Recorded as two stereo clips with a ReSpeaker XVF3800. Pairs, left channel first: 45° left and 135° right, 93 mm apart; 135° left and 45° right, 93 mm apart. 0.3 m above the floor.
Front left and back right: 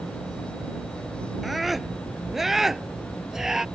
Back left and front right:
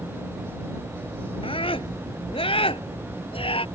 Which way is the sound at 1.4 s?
135° left.